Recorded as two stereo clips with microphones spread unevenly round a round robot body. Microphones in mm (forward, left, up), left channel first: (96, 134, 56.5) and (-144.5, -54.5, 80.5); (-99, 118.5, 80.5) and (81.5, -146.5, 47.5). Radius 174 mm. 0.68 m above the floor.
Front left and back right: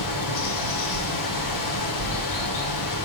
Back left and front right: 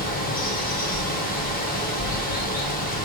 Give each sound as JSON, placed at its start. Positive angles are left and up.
{"t": 0.0, "sound": "running water", "azimuth_deg": 55, "distance_m": 1.8}